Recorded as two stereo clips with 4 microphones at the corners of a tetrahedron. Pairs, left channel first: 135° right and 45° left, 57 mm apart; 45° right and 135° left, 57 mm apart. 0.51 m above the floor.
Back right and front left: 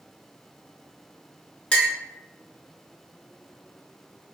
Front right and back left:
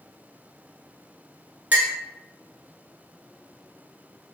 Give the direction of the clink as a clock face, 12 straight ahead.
6 o'clock.